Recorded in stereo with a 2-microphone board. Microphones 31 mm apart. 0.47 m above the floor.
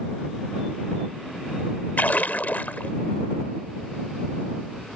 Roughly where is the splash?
Left.